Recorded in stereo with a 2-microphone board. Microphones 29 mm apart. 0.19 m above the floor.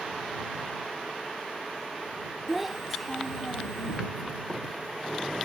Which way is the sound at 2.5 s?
5° right (ahead or behind).